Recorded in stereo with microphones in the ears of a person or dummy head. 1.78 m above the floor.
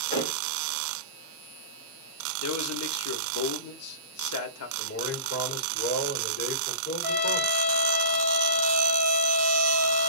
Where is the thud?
30° left (ahead or behind), 3 m.